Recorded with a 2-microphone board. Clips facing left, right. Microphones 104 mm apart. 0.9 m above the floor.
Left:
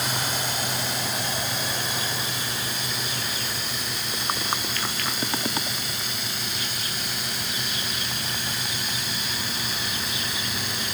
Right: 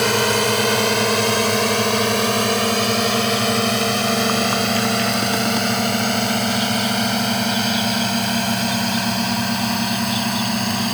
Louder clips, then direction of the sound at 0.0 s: Right 11 dB; 70° right (ahead or behind).